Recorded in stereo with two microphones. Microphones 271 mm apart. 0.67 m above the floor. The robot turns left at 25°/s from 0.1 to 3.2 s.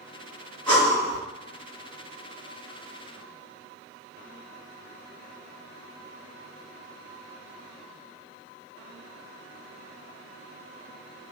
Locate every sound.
0.7 s breathing: 15° left (ahead or behind), 1.7 m; by 1.2 s 5° left (ahead or behind), 1.7 m